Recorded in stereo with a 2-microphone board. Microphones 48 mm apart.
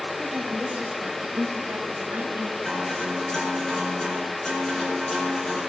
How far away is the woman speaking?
About 3 m.